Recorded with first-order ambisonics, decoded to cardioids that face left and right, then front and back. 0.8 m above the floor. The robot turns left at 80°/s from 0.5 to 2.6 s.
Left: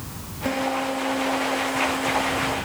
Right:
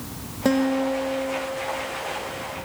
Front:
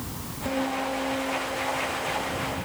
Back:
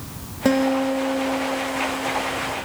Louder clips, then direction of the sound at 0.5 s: Right 2 dB, back 8 dB; 150° right.